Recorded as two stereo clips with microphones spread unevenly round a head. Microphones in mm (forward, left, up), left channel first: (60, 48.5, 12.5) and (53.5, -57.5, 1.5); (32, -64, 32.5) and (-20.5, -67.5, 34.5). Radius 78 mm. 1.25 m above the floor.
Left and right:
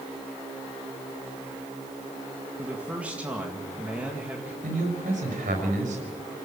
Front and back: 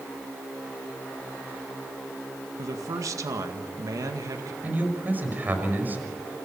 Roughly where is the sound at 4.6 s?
Behind right.